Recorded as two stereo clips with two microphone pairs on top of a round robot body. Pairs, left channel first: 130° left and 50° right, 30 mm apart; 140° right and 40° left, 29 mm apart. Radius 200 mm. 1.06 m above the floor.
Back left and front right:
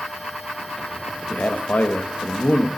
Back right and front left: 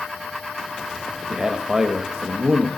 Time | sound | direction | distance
1.3 | a man speaking | 105° left | 1.6 m